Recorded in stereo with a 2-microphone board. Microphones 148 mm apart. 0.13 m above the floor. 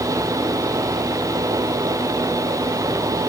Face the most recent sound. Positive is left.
No sound to turn to.